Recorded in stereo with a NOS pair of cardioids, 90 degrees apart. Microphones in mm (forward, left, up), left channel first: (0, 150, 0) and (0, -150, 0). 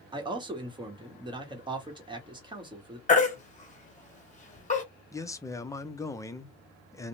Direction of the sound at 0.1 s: 15° right.